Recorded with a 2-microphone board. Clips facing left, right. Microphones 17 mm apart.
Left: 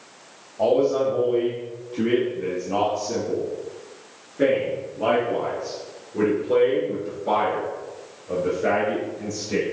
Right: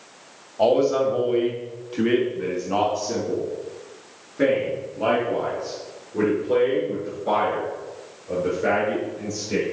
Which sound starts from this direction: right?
A man speaking, at 0.6 s.